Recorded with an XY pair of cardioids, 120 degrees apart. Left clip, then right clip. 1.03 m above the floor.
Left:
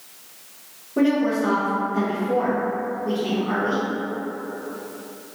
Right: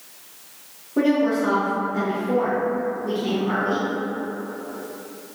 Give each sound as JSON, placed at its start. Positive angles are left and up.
{"t": 1.0, "sound": "a woman speaking", "azimuth_deg": 0, "distance_m": 0.8}